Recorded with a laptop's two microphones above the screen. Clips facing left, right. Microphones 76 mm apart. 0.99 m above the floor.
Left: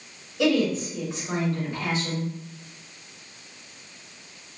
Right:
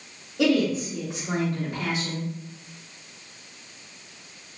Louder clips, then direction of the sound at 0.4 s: Even; 55° right (ahead or behind).